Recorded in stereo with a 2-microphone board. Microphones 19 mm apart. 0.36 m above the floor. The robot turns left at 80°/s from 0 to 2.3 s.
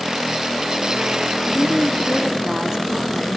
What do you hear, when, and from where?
1.5 s a woman speaking: 5° left, 3.5 m; by 3.4 s 60° right, 3.5 m